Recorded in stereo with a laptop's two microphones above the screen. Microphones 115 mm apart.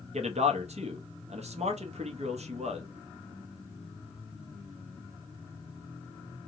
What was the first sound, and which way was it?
A man speaking, 70° right (ahead or behind).